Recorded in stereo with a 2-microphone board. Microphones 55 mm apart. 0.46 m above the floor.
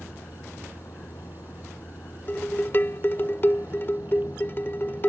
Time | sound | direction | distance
0.0 | a vehicle | 75° left (ahead or behind) | ?
2.3 | dishes clattering | 40° left (ahead or behind) | ?